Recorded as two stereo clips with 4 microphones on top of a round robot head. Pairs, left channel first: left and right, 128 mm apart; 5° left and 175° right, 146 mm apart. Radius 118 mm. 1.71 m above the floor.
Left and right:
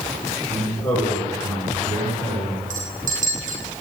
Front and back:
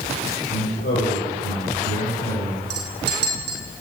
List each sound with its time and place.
0.5 s a man speaking: 25° left, 7 m
2.7 s a clink: 140° right, 1.4 m